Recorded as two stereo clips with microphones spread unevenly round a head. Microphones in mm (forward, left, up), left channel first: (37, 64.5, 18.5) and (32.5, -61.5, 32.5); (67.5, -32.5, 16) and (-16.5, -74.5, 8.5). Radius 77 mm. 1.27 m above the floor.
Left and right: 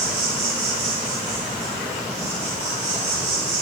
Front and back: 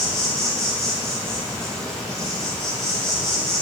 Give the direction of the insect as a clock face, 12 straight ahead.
2 o'clock.